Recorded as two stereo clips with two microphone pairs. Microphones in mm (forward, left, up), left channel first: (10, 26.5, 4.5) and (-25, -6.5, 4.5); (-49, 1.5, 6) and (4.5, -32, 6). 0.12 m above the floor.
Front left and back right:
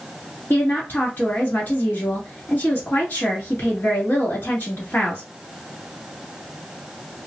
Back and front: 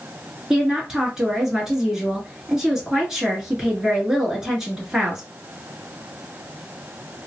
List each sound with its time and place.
0.5 s a woman speaking: 45° left, 1.7 m